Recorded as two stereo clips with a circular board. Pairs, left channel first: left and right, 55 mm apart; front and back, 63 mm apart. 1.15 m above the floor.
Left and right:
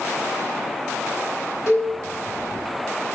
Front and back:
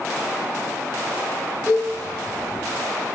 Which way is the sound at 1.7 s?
115° left.